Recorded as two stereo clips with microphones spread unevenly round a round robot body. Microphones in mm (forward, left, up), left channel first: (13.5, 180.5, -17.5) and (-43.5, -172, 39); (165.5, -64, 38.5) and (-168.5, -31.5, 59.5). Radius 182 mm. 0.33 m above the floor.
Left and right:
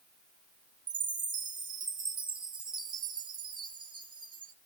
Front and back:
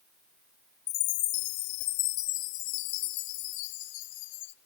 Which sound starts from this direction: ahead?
A chime, at 0.9 s.